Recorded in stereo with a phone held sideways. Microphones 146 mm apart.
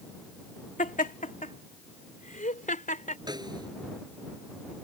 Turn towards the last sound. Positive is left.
turn(degrees=-30)  # may be behind; listen again after turning